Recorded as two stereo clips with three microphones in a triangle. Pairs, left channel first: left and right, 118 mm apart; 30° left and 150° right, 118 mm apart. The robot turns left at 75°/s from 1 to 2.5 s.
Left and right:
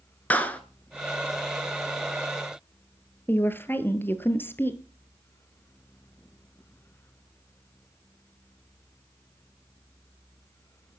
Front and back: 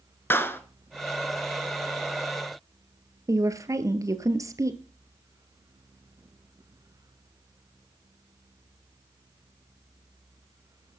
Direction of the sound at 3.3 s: 160° left.